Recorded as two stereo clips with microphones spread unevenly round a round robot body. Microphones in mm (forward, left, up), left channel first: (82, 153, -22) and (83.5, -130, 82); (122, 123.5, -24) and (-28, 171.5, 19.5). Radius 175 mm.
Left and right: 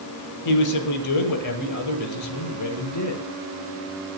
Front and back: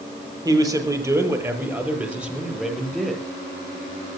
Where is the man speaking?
95° left, 8 m; by 3.2 s 70° left, 8 m.